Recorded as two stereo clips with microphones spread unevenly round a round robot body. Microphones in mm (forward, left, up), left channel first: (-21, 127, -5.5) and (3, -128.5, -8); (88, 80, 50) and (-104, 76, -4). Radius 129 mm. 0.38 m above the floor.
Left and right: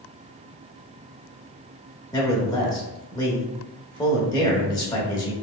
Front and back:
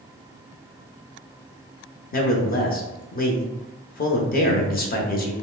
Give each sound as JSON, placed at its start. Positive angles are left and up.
{"t": 2.1, "sound": "a man speaking", "azimuth_deg": 30, "distance_m": 0.9}